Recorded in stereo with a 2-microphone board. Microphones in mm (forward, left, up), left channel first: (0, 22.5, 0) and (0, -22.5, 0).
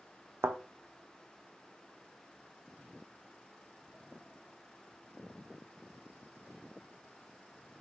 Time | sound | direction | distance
0.4 | a thud | 85° right | 0.5 m